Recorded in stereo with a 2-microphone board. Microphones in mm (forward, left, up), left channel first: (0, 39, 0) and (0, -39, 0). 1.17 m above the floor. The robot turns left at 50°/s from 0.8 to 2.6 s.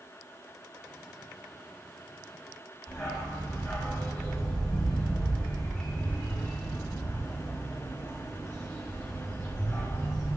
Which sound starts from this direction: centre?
A dog barking, at 2.9 s.